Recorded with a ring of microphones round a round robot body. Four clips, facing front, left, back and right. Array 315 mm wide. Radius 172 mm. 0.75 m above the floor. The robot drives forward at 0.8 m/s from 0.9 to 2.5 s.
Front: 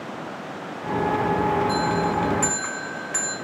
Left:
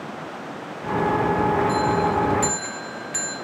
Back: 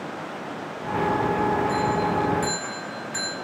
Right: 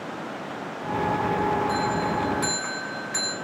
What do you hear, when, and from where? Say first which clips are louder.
1.7 s a bell: left 4 dB, front 1 dB; 10° right, 1.2 m; by 3.4 s 25° right, 0.7 m